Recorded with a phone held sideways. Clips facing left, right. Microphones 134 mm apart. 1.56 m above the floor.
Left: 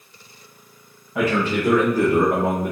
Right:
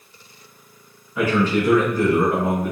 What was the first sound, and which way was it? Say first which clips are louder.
A man speaking: right 2 dB; 80° left.